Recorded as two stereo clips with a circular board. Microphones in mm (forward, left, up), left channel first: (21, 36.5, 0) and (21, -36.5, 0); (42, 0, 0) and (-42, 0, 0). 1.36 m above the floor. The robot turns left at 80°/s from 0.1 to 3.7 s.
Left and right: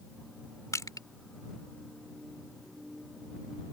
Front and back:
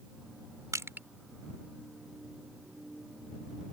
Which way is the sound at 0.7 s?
135° left.